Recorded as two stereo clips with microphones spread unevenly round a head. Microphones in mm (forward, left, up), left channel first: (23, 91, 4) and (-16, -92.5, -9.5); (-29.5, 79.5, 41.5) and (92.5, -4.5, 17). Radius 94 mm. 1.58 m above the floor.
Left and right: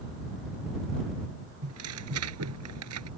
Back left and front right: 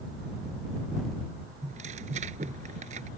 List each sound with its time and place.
1.6 s tearing paper: 90° right